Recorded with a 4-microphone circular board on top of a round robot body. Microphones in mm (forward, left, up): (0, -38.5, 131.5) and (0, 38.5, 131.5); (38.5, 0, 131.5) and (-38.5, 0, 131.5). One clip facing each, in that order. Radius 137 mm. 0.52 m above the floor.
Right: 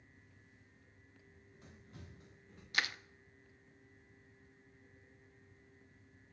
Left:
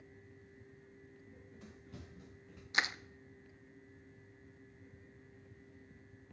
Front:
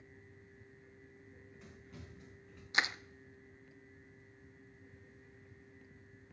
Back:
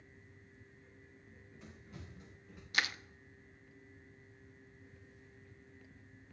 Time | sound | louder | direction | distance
1.3 | running footsteps | left 3 dB, back 2 dB | 90° left | 6 m
2.7 | crushing | left 2 dB, front 2 dB | 45° left | 0.6 m